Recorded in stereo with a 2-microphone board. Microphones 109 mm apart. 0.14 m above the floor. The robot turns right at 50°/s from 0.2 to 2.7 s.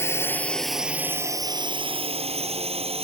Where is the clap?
No clap in this recording.